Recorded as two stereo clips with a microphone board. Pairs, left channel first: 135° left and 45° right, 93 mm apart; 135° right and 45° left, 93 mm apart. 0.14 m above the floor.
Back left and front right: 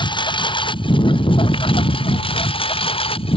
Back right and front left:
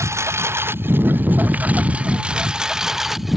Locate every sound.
0.0 s a lawn mower: 105° left; by 3.4 s 135° left